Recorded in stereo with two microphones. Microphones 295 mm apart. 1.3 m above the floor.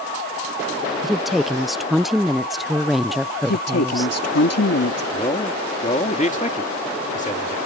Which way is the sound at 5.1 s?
25° left (ahead or behind).